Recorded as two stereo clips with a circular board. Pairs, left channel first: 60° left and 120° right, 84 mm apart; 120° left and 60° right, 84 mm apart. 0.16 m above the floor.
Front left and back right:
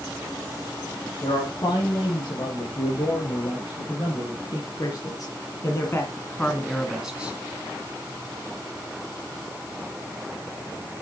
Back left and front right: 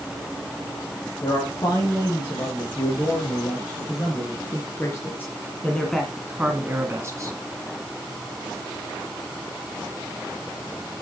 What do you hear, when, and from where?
1.2 s a man speaking: 85° left, 7 m; by 7.3 s 55° right, 2 m